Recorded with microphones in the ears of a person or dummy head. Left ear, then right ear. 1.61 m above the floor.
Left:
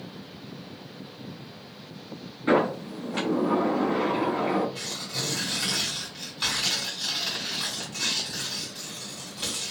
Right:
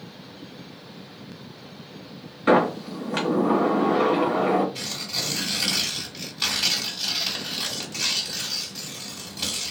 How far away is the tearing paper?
About 1.5 m.